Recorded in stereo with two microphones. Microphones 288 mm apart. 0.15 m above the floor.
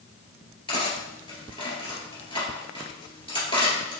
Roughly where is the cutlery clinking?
Centre.